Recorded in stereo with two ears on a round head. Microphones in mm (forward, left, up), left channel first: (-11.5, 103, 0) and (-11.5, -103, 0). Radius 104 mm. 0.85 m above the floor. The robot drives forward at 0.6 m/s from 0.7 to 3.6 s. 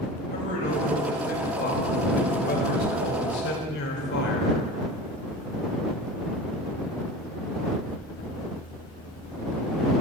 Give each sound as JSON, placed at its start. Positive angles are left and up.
{"t": 0.3, "sound": "a man speaking", "side_deg": 35, "distance_m": 5.0}